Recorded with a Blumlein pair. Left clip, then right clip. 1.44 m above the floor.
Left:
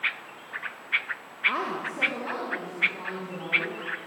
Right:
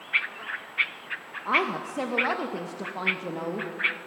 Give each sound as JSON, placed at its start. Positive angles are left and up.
{"t": 1.4, "sound": "a woman speaking", "azimuth_deg": -15, "distance_m": 2.0}